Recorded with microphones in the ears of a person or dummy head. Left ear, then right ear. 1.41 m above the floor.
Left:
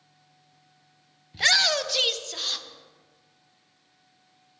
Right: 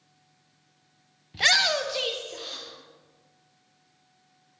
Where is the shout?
5° right (ahead or behind), 0.7 m; by 2.6 s 50° left (ahead or behind), 1.0 m.